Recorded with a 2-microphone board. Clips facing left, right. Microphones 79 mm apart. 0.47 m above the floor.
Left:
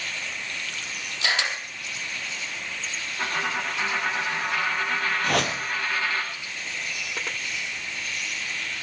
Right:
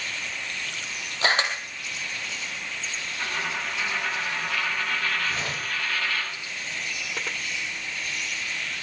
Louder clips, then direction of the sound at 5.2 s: Left 5 dB; 80° left.